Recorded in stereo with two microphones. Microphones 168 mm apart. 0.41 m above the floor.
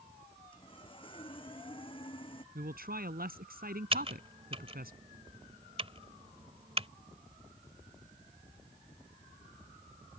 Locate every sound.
0.5 s sawing: 30° left (ahead or behind)
2.5 s a man speaking: 65° right (ahead or behind)
3.9 s typing on a keyboard: 35° right (ahead or behind)